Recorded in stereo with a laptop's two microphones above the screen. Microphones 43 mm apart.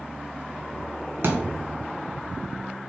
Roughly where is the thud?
Right.